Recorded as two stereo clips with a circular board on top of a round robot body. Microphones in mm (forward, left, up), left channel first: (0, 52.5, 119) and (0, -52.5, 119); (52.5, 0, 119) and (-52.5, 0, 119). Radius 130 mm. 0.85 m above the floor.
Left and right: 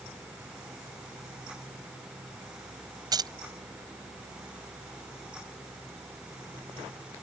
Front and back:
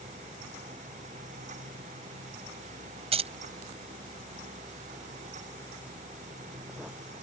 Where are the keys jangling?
145° right.